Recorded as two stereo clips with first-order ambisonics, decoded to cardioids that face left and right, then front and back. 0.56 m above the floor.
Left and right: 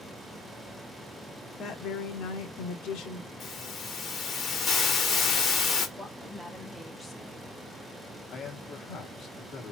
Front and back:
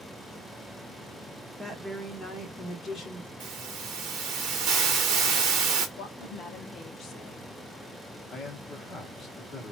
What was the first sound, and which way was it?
A woman speaking, 115° left.